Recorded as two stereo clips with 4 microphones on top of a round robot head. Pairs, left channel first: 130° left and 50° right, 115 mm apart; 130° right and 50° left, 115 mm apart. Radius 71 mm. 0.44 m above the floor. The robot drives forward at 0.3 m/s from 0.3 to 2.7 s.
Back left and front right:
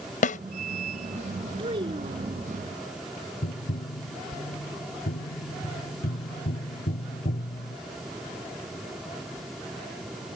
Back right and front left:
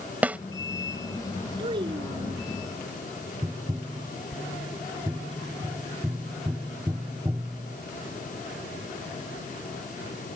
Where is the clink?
I don't hear a clink.